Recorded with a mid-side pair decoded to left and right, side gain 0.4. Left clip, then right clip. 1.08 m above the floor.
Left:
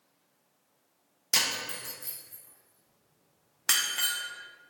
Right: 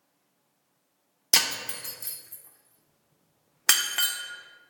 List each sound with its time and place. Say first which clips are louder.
1.3 s breaking glass: right 3 dB; 55° right, 0.6 m